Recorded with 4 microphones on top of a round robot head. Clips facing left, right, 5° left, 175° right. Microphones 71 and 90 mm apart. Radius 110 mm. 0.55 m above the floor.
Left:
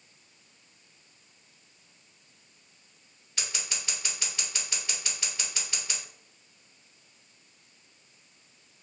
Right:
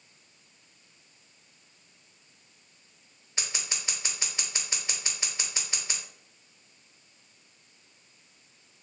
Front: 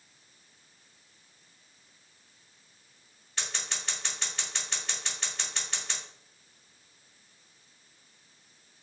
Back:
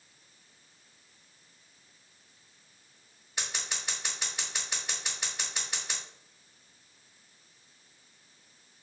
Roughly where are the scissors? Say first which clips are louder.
Even, even; behind right.